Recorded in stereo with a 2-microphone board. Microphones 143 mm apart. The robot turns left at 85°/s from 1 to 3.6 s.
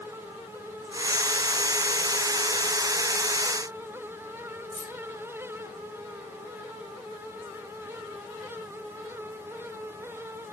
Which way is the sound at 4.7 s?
80° right.